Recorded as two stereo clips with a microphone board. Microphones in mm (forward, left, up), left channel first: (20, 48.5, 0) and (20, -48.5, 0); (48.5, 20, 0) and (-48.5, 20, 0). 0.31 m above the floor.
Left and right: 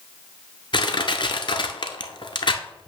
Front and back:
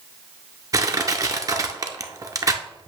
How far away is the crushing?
About 0.7 m.